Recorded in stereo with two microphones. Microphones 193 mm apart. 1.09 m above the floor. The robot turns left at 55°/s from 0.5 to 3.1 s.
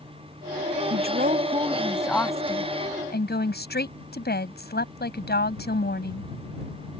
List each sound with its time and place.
0.9 s a woman speaking: 115° right; by 6.3 s 120° left